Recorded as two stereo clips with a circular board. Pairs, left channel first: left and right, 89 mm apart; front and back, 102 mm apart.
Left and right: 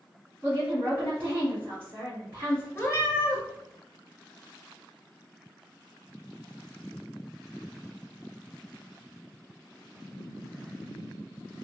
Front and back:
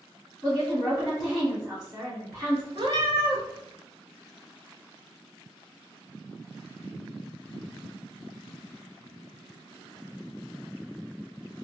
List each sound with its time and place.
0.4 s a woman speaking: 120° right, 1.7 m
2.8 s a cat meowing: 150° left, 0.6 m